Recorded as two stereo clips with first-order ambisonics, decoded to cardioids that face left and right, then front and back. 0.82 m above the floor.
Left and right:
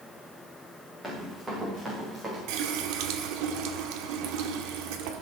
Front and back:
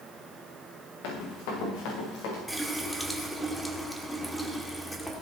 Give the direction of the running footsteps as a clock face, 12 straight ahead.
12 o'clock.